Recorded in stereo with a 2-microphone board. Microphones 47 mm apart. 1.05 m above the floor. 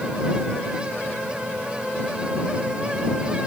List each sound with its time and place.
Only background noise.